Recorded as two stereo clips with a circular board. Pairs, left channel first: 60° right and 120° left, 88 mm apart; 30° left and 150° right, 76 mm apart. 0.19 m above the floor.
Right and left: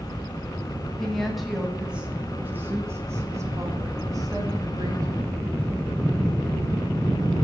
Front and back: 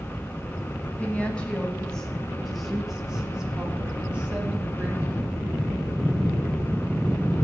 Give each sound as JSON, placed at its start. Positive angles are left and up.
{"t": 1.0, "sound": "a woman speaking", "azimuth_deg": 15, "distance_m": 1.4}